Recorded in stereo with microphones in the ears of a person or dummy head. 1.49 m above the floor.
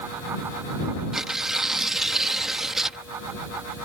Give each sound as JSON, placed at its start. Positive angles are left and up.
{"t": 1.1, "sound": "tearing paper", "side_deg": 0}